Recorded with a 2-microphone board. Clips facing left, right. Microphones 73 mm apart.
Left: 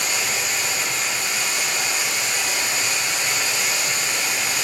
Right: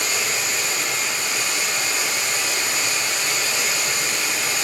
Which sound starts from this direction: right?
Running water, at 0.0 s.